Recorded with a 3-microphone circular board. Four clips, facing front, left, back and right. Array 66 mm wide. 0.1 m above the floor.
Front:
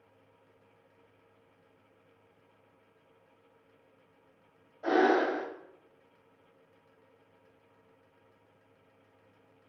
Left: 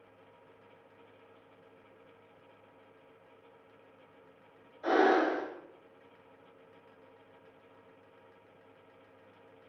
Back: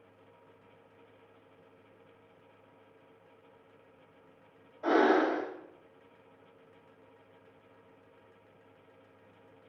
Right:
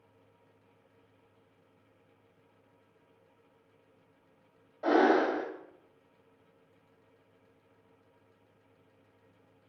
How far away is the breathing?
About 1.8 m.